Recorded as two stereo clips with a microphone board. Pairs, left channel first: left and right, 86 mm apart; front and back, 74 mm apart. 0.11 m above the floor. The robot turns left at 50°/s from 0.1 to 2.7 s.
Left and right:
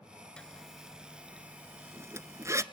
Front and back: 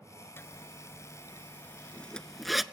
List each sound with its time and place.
0.4 s a zipper: 20° left, 0.6 m; by 2.6 s 95° right, 0.6 m